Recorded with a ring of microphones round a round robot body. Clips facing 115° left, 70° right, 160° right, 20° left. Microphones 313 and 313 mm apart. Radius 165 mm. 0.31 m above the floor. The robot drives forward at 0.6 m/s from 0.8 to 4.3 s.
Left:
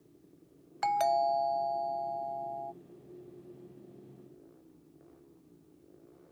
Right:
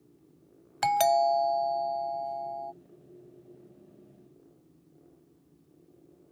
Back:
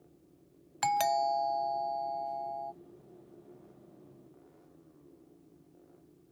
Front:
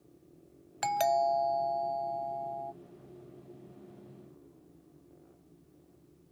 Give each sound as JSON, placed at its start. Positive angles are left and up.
{"t": 0.8, "sound": "a doorbell", "azimuth_deg": -80}